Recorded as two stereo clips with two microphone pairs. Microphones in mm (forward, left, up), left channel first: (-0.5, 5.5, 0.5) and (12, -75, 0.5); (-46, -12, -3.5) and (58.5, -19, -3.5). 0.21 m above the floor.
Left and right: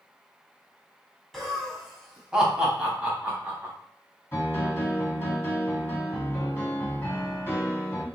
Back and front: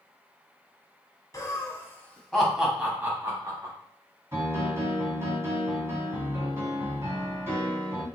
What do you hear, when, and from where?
1.3 s laughter: 175° right, 1.1 m; by 3.7 s 25° right, 1.2 m
4.3 s a piano: 45° left, 1.7 m